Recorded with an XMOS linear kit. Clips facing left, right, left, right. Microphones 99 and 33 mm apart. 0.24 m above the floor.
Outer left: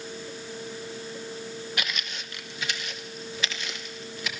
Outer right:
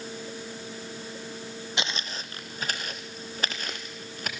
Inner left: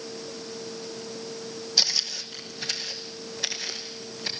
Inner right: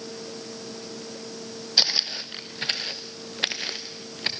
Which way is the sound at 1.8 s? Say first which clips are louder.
Outer right 1 dB, inner right 3 dB; 25° right (ahead or behind).